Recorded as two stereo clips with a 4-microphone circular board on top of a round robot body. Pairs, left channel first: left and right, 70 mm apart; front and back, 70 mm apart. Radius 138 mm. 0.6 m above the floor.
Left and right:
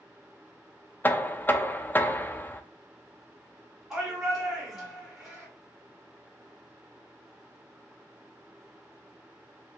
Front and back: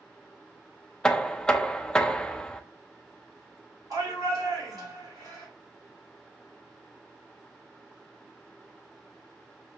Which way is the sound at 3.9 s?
165° right.